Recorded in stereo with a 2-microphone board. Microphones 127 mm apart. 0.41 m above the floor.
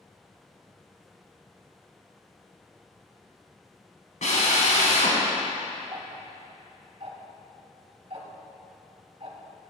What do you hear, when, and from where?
4.2 s a drill: 75° left (ahead or behind), 1.5 m
5.9 s ticking: 55° right (ahead or behind), 0.9 m